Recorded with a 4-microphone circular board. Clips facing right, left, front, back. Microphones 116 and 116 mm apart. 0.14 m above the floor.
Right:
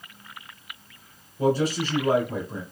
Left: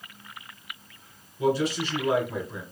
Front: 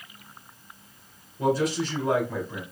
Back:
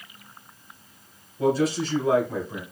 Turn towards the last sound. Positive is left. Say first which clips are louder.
# right 2 dB, back 2 dB
turn(degrees=-90)